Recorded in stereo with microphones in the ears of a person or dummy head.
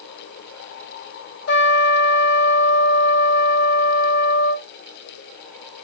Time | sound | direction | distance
1.5 | a trumpet | 60° left (ahead or behind) | 2.5 m